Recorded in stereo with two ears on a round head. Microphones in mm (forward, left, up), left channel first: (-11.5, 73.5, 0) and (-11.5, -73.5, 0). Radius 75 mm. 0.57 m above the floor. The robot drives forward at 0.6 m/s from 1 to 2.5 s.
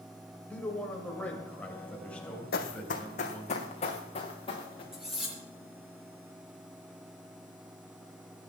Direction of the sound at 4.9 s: 5° right (ahead or behind).